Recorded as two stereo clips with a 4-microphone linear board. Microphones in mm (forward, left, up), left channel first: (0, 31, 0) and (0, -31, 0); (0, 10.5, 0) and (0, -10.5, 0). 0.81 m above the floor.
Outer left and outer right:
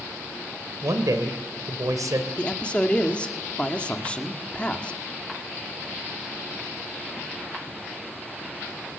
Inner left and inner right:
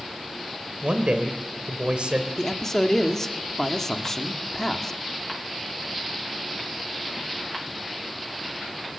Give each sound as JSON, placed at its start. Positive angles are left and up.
{"t": 0.8, "sound": "a man speaking", "side_deg": -75, "distance_m": 2.5}
{"t": 2.4, "sound": "a man speaking", "side_deg": 20, "distance_m": 1.7}